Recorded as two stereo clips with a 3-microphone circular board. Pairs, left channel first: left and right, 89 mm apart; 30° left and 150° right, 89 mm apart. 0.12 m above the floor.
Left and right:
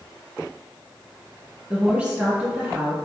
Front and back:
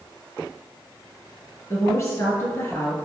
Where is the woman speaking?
10° right, 1.8 m.